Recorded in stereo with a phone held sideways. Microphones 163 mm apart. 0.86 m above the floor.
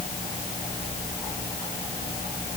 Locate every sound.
Only background noise.